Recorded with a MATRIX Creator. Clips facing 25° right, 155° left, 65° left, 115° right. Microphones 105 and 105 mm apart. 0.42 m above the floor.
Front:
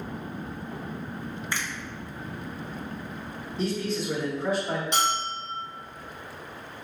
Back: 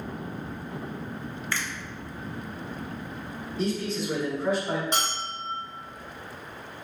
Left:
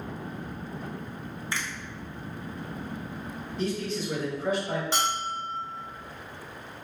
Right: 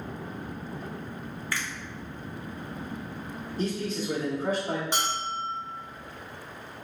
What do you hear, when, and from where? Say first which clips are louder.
1.5 s a finger snap: back 1 dB, even; 30° left, 0.6 m
3.6 s a man speaking: even, even; 110° right, 1.0 m
4.9 s a bell: front 4 dB, left 1 dB; straight behind, 1.5 m